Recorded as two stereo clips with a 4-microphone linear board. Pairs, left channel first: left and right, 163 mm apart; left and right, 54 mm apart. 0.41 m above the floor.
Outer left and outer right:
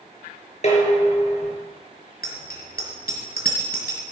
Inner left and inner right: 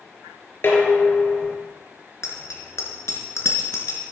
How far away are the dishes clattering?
About 4.5 m.